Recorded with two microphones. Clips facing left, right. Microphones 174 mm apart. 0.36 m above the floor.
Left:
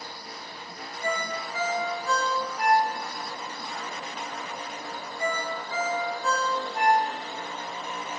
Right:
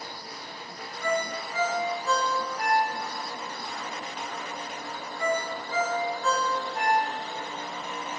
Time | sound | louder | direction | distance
1.0 | a ringtone | right 2 dB | 15° left (ahead or behind) | 1.8 m